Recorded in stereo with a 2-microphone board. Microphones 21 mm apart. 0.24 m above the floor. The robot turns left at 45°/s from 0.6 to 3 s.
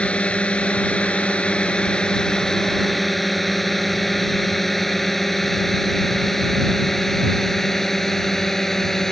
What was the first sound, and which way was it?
A drone, 60° left (ahead or behind).